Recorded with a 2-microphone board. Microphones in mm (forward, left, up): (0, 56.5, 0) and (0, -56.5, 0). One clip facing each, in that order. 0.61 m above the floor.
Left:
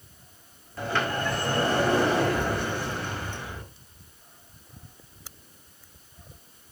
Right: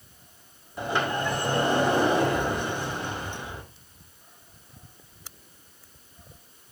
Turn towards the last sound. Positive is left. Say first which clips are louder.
# right 1 dB
turn(degrees=-15)  # may be behind; listen again after turning